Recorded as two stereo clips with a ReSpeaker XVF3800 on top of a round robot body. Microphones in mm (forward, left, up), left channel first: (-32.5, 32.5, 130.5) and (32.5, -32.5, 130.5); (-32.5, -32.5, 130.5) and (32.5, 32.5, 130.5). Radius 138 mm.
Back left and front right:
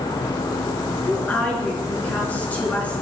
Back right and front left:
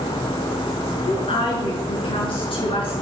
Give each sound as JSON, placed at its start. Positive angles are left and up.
{"t": 1.1, "sound": "a woman speaking", "azimuth_deg": -150, "distance_m": 7.0}